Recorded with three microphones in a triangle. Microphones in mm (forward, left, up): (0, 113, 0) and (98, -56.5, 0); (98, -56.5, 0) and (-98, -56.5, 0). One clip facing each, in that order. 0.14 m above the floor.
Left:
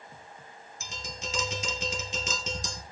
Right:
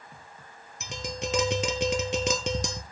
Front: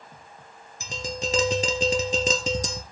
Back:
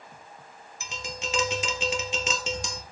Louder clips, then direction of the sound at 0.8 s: Right 8 dB, front 6 dB; 50° right.